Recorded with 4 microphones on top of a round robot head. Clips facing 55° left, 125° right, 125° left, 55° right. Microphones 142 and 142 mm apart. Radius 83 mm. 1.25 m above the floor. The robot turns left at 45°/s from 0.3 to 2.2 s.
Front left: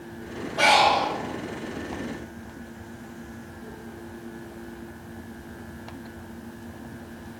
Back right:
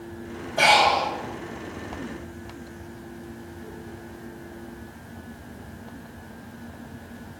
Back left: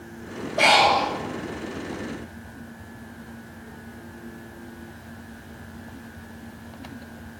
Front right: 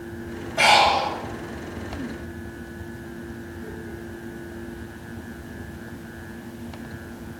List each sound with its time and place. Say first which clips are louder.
0.6 s breathing: even, even; 75° right, 1.9 m; by 1.1 s 100° right, 1.9 m